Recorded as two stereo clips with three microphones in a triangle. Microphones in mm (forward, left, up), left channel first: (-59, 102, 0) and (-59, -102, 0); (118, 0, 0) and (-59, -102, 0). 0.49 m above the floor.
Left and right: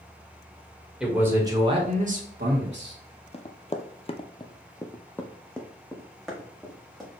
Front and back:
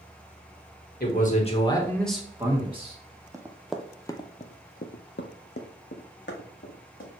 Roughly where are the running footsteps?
Behind left.